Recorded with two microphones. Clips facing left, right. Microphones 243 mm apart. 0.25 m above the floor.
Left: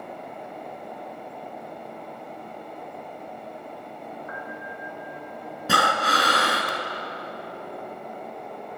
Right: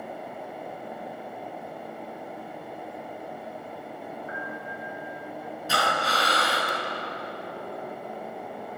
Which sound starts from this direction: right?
A piano, at 4.3 s.